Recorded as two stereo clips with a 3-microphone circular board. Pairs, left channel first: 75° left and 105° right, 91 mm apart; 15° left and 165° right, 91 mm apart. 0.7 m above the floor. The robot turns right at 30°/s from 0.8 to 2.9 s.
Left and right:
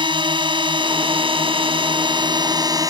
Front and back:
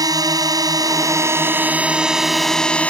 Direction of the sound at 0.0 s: 120° right.